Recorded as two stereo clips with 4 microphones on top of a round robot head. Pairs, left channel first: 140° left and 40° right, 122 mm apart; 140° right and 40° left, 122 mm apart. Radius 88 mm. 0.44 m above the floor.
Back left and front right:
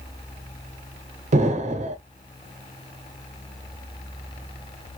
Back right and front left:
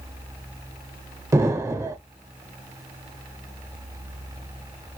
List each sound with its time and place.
1.3 s an explosion: 25° right, 0.6 m